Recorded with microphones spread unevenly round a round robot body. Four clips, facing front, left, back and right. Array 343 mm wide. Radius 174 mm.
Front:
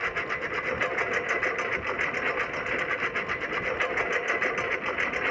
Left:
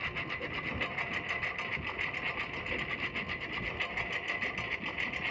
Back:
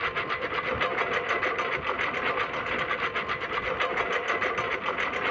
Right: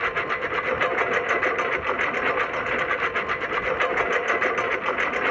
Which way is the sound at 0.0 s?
90° right.